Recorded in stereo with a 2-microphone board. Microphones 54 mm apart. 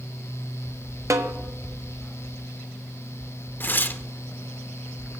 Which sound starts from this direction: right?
A snare drum, at 1.1 s.